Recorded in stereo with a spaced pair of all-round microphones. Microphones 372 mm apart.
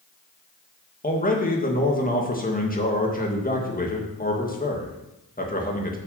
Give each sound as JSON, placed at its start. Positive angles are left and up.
{"t": 1.0, "sound": "a man speaking", "side_deg": 20, "distance_m": 2.0}